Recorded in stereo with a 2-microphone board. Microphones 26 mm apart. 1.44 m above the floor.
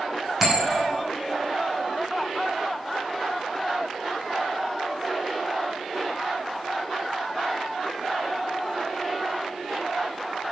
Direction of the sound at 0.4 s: 10° right (ahead or behind).